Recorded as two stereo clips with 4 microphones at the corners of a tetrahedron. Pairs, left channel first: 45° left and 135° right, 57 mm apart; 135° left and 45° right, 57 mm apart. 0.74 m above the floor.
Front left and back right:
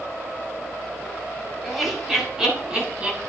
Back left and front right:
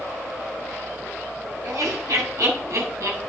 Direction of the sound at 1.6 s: 45° right.